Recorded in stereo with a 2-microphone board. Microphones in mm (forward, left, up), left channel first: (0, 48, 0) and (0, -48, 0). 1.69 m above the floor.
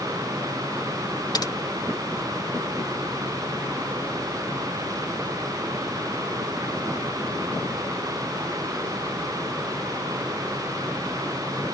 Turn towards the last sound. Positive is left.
turn(degrees=45)  # may be behind; listen again after turning